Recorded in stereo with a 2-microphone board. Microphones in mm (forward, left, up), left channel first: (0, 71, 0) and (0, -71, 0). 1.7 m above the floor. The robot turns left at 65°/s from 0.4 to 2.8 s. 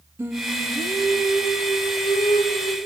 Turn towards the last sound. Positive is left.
turn(degrees=40)